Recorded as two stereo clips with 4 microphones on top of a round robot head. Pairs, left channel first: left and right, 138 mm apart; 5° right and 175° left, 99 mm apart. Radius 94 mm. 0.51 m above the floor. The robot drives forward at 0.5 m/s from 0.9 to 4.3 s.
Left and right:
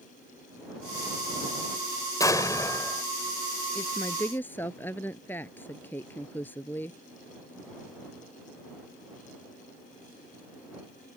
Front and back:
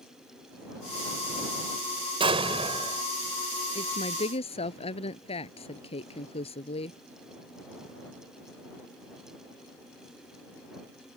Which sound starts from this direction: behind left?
An explosion, at 2.2 s.